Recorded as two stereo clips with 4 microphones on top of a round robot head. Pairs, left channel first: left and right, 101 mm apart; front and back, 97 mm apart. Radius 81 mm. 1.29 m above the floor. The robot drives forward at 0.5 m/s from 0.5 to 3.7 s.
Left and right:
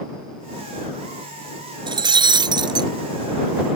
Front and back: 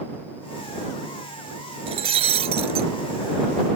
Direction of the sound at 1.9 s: 130° right.